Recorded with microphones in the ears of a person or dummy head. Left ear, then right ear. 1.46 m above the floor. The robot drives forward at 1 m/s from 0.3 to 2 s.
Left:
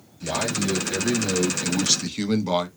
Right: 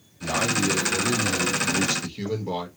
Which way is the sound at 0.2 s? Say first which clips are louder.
Right 2 dB; 20° left (ahead or behind).